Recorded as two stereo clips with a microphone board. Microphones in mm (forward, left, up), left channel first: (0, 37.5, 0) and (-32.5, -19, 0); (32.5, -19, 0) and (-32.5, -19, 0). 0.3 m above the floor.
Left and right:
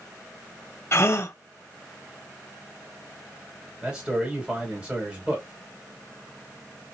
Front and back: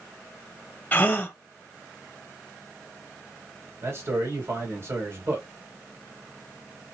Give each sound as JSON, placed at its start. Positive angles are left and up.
{"t": 0.9, "sound": "a gasp", "azimuth_deg": 50, "distance_m": 0.8}
{"t": 3.8, "sound": "a man speaking", "azimuth_deg": 175, "distance_m": 1.9}